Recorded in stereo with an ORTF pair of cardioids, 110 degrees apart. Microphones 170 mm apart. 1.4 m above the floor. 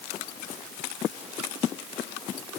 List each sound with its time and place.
Only background noise.